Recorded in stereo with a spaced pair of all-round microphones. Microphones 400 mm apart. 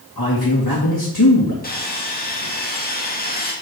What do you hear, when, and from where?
0.2 s a man speaking: 55° left (ahead or behind), 2 m
1.6 s sawing: 20° left (ahead or behind), 2.5 m